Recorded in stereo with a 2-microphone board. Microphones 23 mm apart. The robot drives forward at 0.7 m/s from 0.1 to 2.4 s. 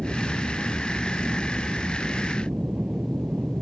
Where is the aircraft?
55° right (ahead or behind); by 3.6 s 60° right (ahead or behind).